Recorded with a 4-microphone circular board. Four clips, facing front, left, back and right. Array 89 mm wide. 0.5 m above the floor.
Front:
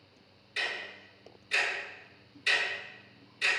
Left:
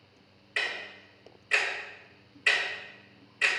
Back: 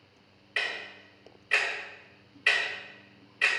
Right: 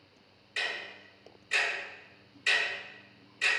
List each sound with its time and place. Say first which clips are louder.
0.6 s ticking: left 2 dB, back 2 dB; 145° left, 2 m